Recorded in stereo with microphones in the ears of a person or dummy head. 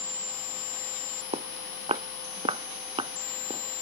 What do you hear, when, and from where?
1.3 s footsteps: 35° right (ahead or behind); by 3.6 s 30° right (ahead or behind)